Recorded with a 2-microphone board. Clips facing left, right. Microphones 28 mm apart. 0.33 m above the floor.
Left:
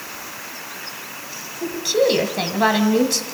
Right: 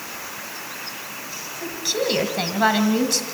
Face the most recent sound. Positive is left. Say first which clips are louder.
# left 6 dB
turn(degrees=15)  # may be behind; listen again after turning